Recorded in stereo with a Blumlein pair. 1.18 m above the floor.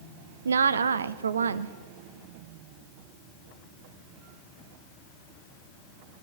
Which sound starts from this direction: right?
A woman speaking, at 0.5 s.